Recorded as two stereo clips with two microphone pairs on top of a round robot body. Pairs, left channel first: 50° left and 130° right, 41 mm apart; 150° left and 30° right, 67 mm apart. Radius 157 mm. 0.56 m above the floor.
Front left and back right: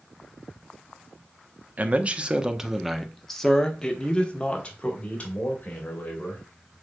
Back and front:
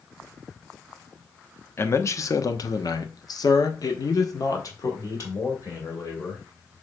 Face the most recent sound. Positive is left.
turn(degrees=105)